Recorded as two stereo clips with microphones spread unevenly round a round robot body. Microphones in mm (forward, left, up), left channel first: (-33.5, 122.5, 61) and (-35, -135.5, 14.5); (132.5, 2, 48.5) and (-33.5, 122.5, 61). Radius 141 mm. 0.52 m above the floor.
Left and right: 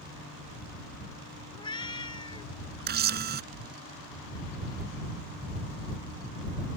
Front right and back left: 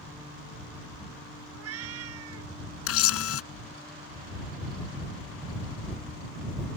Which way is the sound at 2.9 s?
30° right.